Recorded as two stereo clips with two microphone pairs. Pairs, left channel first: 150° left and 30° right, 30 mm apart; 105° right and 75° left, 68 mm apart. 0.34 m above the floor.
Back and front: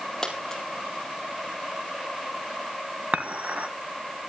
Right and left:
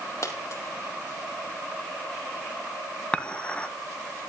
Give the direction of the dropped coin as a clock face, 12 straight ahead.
5 o'clock.